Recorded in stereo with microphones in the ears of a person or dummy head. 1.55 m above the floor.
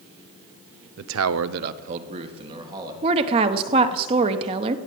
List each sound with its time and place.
1.0 s a man speaking: 55° right (ahead or behind), 0.7 m; by 2.9 s 20° right (ahead or behind), 2 m
3.0 s a woman speaking: 30° right (ahead or behind), 0.9 m